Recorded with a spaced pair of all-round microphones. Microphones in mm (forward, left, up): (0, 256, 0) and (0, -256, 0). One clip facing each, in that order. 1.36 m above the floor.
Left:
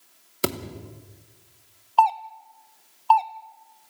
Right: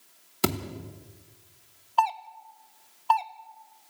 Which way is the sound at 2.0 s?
45° right (ahead or behind).